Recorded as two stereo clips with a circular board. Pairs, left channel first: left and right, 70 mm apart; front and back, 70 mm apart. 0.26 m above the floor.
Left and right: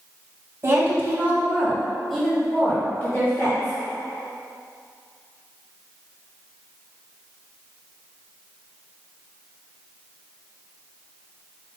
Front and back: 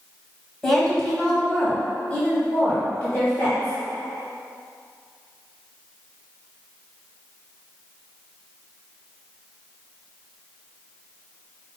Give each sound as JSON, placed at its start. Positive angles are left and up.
{"t": 0.6, "sound": "a woman speaking", "azimuth_deg": -85, "distance_m": 1.6}